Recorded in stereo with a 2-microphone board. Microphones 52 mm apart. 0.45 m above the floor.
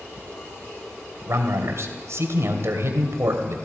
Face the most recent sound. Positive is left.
turn(degrees=-60)  # may be behind; listen again after turning